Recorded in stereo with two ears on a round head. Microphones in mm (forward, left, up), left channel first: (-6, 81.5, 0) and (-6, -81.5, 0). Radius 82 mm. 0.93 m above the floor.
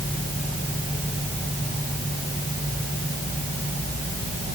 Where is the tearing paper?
I don't hear tearing paper.